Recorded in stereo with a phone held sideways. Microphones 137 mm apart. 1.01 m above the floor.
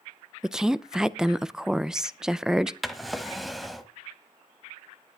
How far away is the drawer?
About 1.3 m.